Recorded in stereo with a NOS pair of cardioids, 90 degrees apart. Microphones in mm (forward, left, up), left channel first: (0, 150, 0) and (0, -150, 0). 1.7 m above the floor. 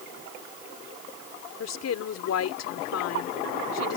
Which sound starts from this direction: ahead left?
A woman speaking, at 1.6 s.